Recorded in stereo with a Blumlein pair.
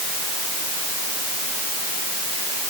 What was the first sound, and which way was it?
Only background noise.